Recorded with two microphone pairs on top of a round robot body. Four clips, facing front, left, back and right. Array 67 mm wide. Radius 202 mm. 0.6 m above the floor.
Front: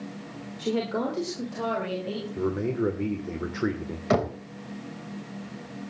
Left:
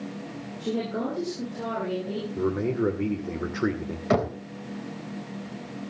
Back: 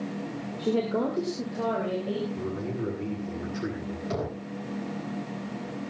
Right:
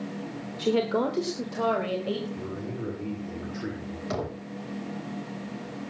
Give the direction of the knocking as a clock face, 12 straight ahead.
11 o'clock.